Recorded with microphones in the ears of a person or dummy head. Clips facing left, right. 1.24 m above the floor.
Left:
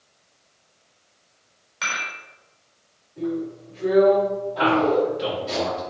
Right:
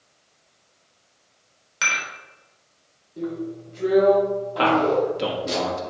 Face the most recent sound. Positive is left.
turn(degrees=-75)  # may be behind; listen again after turning